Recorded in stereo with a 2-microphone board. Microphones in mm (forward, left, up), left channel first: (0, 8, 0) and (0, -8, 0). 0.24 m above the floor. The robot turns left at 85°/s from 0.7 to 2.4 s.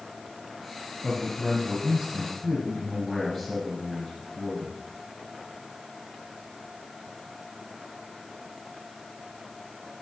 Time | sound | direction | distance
1.0 | a man speaking | 70° right | 3.5 m